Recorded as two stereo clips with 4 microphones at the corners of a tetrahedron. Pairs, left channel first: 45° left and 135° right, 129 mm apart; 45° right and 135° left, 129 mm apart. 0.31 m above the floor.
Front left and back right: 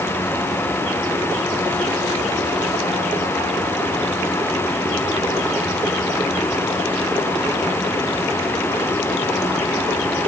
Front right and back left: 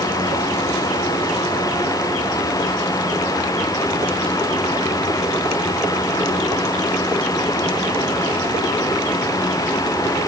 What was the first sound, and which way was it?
Only background noise.